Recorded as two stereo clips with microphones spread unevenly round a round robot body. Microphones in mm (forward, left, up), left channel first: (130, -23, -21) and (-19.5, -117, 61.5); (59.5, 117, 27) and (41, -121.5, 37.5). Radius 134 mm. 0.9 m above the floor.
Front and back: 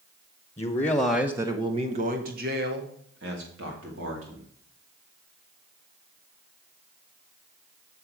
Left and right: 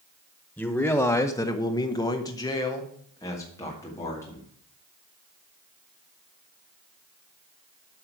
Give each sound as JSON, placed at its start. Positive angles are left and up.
{"t": 0.6, "sound": "a man speaking", "azimuth_deg": 5, "distance_m": 1.2}